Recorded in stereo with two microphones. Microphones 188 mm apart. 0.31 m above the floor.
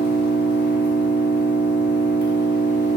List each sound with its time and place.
0.0 s an engine running: 65° left (ahead or behind), 1.1 m